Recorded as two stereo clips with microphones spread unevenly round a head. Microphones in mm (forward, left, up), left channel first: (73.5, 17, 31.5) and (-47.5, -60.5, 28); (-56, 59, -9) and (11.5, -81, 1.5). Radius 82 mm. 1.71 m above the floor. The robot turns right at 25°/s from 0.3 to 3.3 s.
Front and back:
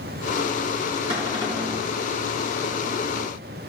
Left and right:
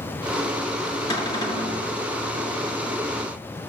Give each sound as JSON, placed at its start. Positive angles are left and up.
{"t": 1.1, "sound": "a cupboard door", "azimuth_deg": 160, "distance_m": 1.6}